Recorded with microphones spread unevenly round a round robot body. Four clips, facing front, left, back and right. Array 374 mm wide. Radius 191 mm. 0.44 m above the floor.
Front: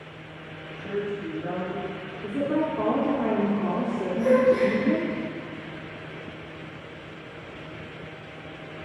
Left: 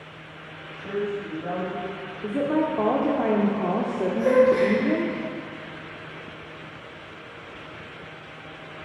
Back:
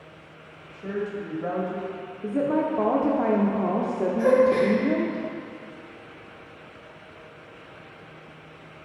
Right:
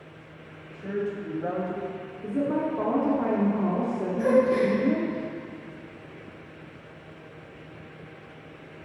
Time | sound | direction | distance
0.7 | a woman speaking | 150° right | 2.5 m
2.2 | a woman speaking | 110° left | 1.0 m
4.2 | a gasp | 170° right | 2 m